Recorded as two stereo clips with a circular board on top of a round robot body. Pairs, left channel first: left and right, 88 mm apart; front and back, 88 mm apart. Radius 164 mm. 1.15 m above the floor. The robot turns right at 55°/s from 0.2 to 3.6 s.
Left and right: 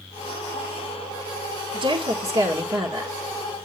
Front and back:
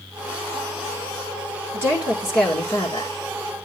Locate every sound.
1.7 s a woman speaking: 120° right, 2 m; by 3.1 s 40° right, 2 m